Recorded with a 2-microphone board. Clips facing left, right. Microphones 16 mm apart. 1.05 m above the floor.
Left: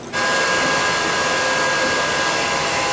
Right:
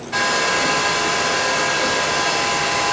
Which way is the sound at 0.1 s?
55° right (ahead or behind).